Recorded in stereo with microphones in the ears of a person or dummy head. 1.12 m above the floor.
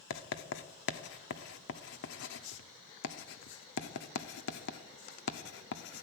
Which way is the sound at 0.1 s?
70° left (ahead or behind).